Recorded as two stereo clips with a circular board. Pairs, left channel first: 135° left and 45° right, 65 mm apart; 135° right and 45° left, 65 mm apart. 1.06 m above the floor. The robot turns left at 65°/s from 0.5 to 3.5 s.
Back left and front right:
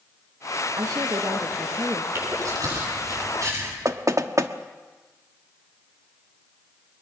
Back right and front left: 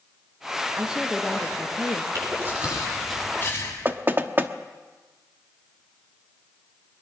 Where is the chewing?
5° left, 9.5 m; by 3.8 s 85° right, 9.5 m.